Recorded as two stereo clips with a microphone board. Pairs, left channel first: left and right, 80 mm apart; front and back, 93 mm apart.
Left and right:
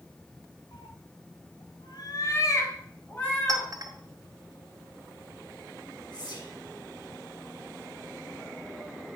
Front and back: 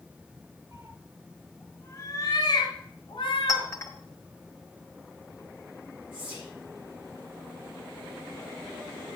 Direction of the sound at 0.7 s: 120° left.